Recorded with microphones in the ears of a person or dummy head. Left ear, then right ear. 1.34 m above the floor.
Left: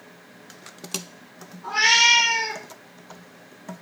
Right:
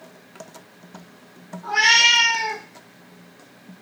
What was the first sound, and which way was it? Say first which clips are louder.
A cat meowing: right 2 dB; 20° right (ahead or behind).